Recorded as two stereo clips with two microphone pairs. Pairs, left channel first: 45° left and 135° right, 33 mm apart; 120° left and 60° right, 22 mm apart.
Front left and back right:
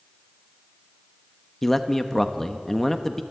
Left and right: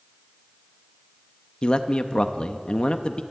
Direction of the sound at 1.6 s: 125° left.